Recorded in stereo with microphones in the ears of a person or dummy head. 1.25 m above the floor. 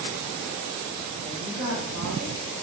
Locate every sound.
1.2 s a woman speaking: 50° right (ahead or behind), 0.9 m; by 2.6 s 80° right, 1.0 m